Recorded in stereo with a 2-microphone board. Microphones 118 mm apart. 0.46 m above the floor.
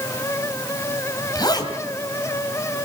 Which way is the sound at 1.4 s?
35° left (ahead or behind).